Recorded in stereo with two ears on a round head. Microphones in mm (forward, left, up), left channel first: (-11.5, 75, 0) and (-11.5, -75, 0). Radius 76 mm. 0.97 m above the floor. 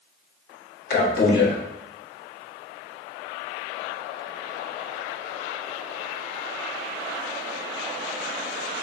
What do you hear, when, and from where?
0.9 s a man speaking: 65° left (ahead or behind), 1.2 m